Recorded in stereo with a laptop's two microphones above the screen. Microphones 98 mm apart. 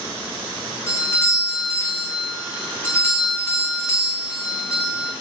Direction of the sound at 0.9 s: 25° left (ahead or behind).